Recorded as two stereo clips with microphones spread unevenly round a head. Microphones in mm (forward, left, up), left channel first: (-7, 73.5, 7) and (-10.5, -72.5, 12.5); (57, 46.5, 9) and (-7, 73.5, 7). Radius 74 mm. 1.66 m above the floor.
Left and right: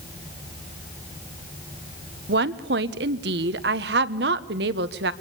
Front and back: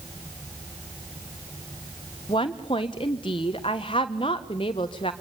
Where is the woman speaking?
70° right, 1.2 m.